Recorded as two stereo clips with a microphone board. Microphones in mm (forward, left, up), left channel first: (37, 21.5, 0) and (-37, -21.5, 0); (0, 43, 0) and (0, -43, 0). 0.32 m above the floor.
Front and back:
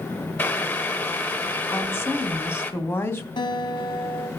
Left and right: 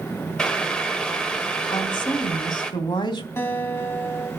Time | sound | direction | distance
0.4 | boiling | 30° left | 1.5 m
1.7 | a woman speaking | 90° left | 2.5 m
3.4 | a guitar | 30° left | 3 m